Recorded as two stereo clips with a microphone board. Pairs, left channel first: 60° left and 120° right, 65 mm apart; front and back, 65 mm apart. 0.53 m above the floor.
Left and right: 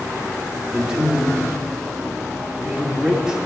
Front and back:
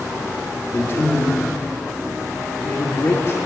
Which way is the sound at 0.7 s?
35° right.